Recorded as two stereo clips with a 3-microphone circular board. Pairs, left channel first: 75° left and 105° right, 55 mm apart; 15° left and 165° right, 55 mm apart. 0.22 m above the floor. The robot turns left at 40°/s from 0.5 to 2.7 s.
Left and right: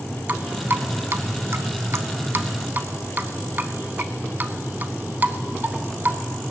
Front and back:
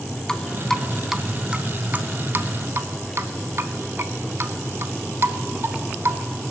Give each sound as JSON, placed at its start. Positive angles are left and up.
{"t": 0.3, "sound": "dripping", "azimuth_deg": -60, "distance_m": 0.7}